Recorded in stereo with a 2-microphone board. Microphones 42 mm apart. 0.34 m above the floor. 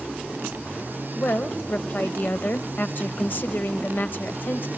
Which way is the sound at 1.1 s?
50° left (ahead or behind).